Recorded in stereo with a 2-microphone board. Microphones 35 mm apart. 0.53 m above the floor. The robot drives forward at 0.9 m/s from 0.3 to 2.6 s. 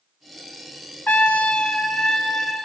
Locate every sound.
1.1 s a trumpet: 55° left (ahead or behind), 0.6 m; by 2.7 s 15° left (ahead or behind), 1.7 m